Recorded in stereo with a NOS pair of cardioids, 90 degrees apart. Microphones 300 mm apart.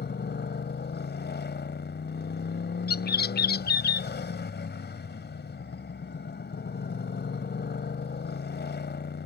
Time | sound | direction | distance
0.0 | a motorcycle | 35° left | ?
2.9 | a bird | 35° left | ?